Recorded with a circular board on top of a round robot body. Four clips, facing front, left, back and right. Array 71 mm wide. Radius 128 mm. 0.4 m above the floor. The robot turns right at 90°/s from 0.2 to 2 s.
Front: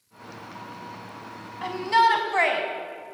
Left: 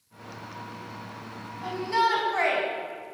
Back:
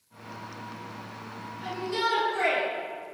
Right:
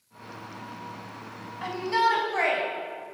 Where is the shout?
30° right, 4.5 m; by 2.6 s 5° left, 4.5 m.